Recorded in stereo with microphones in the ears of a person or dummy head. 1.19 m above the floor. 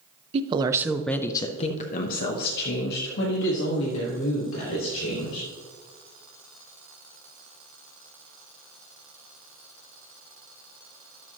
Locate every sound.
0.3 s a woman speaking: 30° right (ahead or behind), 0.6 m; by 5.5 s 85° left, 2.5 m